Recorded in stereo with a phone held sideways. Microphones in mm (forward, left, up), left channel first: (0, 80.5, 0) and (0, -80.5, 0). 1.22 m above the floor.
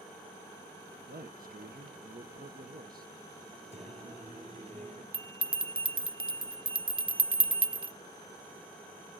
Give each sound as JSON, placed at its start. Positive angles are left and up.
{"t": 1.1, "sound": "a man speaking", "side_deg": -60, "distance_m": 0.9}
{"t": 3.7, "sound": "singing", "side_deg": -45, "distance_m": 6.5}
{"t": 5.1, "sound": "a bell", "side_deg": -30, "distance_m": 0.6}